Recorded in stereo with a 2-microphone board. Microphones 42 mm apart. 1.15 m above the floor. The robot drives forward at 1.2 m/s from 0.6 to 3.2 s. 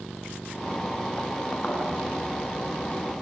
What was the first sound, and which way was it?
A thud, 30° left (ahead or behind).